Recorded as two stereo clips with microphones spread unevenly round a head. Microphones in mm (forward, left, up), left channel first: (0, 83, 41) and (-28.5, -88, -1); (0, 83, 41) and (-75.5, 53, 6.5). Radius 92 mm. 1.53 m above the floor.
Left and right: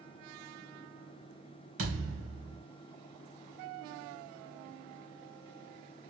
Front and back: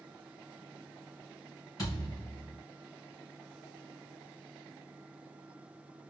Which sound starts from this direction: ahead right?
A thud, at 1.8 s.